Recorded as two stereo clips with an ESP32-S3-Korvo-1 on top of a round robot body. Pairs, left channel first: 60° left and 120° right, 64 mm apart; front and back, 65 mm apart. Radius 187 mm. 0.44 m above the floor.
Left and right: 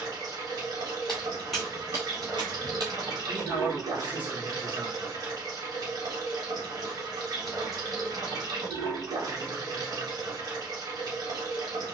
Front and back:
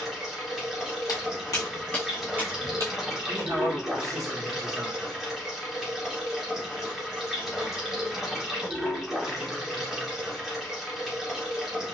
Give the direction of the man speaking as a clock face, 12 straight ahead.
6 o'clock.